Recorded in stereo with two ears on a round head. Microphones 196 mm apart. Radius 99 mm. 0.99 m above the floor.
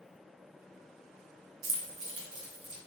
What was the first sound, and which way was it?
Keys jangling, 75° right (ahead or behind).